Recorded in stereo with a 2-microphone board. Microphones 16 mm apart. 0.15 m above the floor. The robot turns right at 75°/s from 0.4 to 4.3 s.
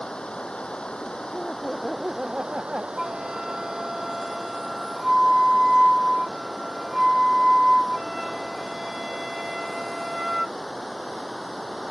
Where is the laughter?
150° left; by 2.9 s 95° right.